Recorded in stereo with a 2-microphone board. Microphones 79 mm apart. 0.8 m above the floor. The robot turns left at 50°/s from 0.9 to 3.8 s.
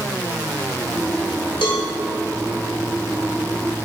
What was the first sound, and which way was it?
A cowbell, 80° left.